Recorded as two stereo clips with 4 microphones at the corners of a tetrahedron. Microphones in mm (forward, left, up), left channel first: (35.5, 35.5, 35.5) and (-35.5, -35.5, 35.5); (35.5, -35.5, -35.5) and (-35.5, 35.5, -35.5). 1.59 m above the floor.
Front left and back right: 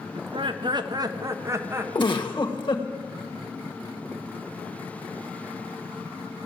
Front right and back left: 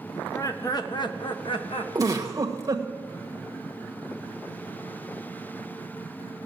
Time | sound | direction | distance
0.1 | laughter | 110° right | 1.3 m
1.9 | a giggle | 80° left | 1.4 m